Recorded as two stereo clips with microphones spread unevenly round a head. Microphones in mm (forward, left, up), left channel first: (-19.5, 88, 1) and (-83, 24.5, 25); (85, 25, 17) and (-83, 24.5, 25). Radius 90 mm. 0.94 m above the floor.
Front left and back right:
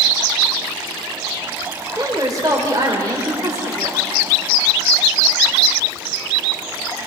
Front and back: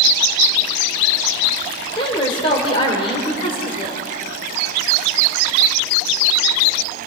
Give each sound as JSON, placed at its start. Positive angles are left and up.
{"t": 1.9, "sound": "a woman speaking", "azimuth_deg": -65, "distance_m": 3.5}